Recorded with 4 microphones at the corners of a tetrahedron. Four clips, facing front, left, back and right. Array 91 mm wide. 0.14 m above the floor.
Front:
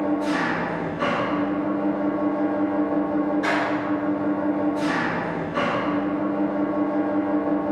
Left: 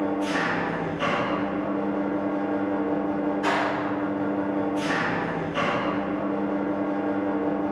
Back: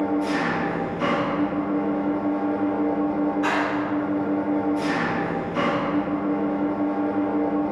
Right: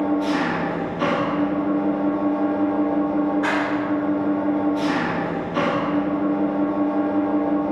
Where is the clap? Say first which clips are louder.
Right 3 dB, even; 80° right, 1.9 m.